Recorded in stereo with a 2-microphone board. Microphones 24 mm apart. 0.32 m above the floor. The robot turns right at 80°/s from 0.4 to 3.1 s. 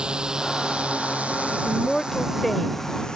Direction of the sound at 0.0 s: 45° right (ahead or behind).